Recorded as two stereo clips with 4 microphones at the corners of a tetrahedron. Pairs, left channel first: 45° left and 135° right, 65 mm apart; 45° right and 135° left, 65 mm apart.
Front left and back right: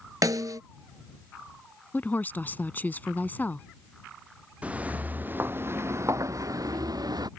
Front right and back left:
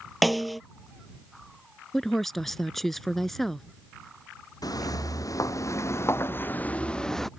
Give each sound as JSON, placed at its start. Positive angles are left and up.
{"t": 0.2, "sound": "a snare drum", "azimuth_deg": -135}
{"t": 1.9, "sound": "a woman speaking", "azimuth_deg": 35}
{"t": 4.6, "sound": "footsteps", "azimuth_deg": -65}